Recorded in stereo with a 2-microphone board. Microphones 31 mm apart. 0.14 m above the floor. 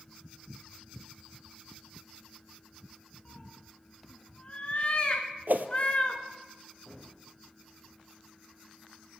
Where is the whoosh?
75° right (ahead or behind), 0.6 m.